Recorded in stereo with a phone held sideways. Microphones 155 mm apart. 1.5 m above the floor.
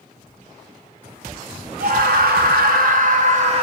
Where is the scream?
65° right (ahead or behind), 1.3 m; by 3.6 s 45° right (ahead or behind), 1.4 m.